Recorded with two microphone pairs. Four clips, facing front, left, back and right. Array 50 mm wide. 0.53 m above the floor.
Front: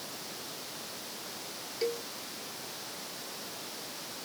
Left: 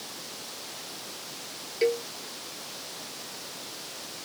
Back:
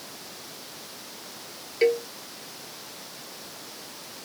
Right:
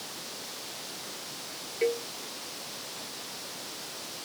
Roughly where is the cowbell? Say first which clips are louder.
Left 3 dB, back 12 dB; behind.